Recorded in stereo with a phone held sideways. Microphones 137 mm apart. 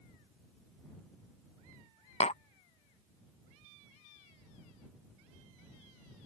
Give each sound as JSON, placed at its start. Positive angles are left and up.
{"t": 2.2, "sound": "tapping", "side_deg": 50}